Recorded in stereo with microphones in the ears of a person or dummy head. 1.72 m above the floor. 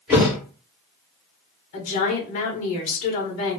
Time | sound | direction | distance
0.1 | a thud | 5° right (ahead or behind) | 1.9 m
1.7 | a woman speaking | 45° left (ahead or behind) | 1.1 m